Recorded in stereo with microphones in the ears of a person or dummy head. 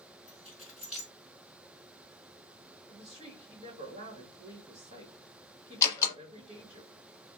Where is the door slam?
15° left (ahead or behind), 0.9 m.